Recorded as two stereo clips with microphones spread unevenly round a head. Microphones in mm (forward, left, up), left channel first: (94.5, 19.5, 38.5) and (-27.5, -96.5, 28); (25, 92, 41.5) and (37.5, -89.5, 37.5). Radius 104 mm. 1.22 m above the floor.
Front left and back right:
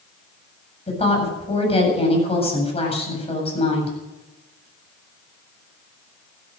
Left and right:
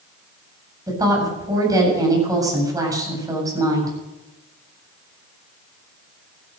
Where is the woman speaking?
15° right, 8 m.